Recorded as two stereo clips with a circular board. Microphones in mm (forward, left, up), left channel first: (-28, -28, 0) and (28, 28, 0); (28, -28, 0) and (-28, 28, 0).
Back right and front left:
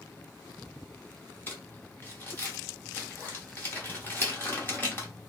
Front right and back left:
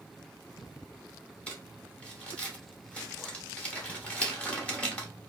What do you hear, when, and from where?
1.5 s crumpling: 105° right, 1.2 m